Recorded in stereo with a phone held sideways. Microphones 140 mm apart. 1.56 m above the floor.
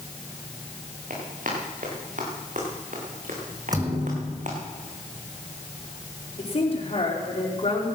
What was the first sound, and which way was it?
Running footsteps, 70° right (ahead or behind).